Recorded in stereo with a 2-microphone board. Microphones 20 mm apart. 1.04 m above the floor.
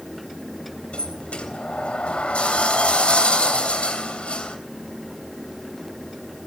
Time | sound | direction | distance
0.9 | a sliding door | 70° left (ahead or behind) | 3 m